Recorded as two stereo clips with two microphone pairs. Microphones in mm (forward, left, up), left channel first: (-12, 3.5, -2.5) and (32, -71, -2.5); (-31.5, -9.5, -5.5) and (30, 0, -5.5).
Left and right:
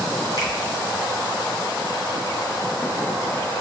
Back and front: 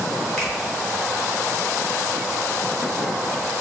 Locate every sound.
0.4 s a finger snap: 125° left, 1.9 m